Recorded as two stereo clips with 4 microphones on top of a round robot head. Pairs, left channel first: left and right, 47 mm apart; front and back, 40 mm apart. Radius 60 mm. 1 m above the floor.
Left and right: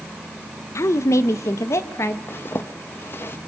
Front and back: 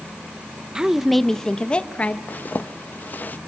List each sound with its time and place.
0.8 s a woman speaking: 110° left, 0.6 m; by 2.2 s 55° left, 1.0 m
2.3 s a zipper: 45° left, 0.8 m